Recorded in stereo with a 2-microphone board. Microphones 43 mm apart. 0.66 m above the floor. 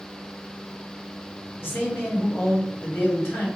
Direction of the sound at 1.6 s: 60° left (ahead or behind).